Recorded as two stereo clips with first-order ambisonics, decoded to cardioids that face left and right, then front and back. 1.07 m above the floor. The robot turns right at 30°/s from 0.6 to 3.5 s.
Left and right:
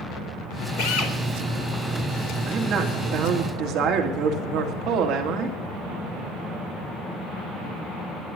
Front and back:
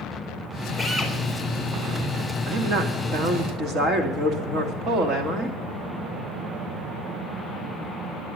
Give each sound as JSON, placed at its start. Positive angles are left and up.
{"t": 0.8, "sound": "a drill", "azimuth_deg": 90, "distance_m": 4.0}
{"t": 2.5, "sound": "a woman speaking", "azimuth_deg": -155, "distance_m": 2.5}